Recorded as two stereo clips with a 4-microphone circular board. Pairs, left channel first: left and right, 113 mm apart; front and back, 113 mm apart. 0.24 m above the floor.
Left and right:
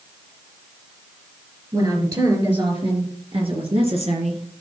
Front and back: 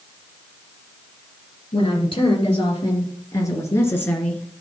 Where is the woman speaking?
35° right, 4 m; by 4.5 s 80° right, 3 m.